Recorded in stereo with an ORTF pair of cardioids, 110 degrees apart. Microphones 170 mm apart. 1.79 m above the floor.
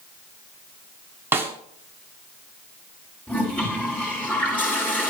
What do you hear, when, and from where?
1.3 s a snare drum: 15° right, 1.6 m
3.3 s a toilet flushing: 10° left, 5 m